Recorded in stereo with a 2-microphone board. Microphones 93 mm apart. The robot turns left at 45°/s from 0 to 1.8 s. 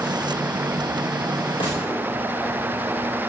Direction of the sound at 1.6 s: 60° left (ahead or behind).